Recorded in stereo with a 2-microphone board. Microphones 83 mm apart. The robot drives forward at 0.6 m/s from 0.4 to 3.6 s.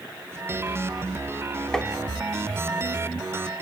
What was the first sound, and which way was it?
Tapping, 10° left (ahead or behind).